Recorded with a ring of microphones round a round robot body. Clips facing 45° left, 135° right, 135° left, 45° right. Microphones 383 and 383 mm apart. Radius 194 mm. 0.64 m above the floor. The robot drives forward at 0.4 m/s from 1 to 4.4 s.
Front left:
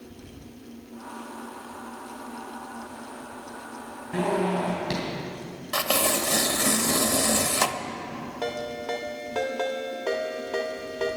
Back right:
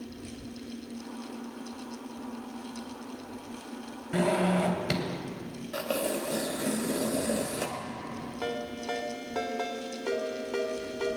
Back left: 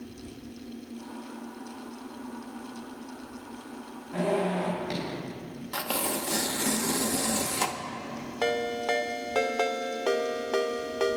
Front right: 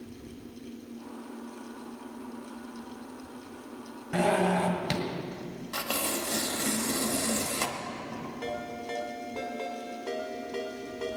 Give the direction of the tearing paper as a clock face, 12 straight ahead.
10 o'clock.